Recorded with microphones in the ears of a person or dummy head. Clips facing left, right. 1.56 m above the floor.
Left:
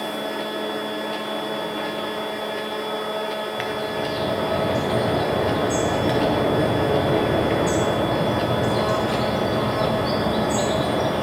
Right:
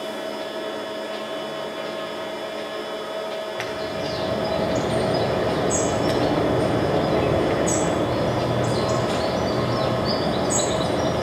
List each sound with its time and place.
0.0 s a machine running: 60° left (ahead or behind), 0.8 m
3.6 s a bird: centre (ahead or behind), 0.7 m